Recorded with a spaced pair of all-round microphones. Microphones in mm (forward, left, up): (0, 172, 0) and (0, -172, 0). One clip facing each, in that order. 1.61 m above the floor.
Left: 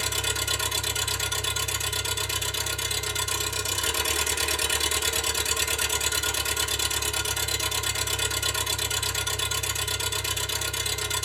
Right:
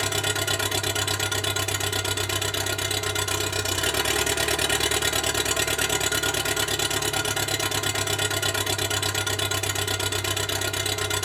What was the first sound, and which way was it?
An engine running, 75° right (ahead or behind).